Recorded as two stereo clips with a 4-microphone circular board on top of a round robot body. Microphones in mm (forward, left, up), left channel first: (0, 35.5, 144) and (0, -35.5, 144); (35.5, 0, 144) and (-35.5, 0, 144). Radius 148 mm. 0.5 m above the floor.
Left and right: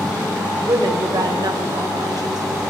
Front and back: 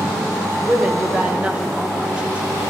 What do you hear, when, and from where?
0.7 s a woman speaking: 110° right, 2.5 m